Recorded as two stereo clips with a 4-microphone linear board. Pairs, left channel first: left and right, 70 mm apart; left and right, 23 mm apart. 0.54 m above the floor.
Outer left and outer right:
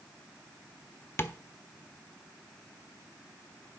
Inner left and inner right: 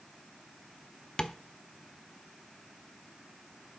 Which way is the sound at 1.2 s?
35° left (ahead or behind).